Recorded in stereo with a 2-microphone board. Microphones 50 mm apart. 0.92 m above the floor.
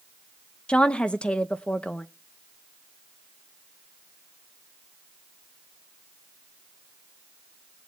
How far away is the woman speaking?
About 0.7 m.